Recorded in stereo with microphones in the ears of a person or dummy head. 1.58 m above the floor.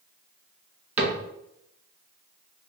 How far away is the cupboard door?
About 0.6 m.